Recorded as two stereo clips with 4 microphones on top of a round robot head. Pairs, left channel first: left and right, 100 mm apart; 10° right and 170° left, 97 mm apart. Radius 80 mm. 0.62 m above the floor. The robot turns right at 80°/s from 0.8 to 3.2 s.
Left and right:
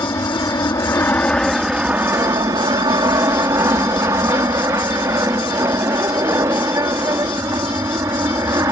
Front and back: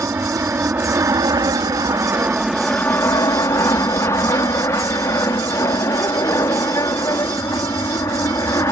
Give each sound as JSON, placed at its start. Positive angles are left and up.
{"t": 0.0, "sound": "an aircraft", "azimuth_deg": 120}